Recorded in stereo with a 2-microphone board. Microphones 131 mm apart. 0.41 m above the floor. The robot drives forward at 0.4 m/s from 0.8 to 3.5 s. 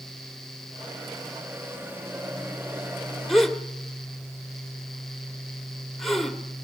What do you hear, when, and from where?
3.3 s a gasp: centre (ahead or behind), 1.4 m